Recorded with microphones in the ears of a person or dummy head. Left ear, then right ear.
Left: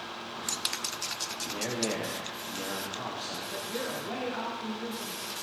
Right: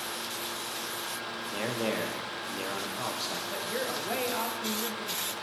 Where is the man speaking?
15° right (ahead or behind), 1.4 m.